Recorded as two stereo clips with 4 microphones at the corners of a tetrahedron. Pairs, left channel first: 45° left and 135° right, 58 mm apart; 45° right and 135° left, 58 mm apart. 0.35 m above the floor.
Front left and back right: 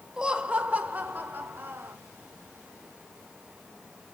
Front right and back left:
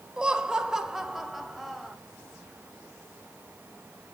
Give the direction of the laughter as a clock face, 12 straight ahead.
6 o'clock.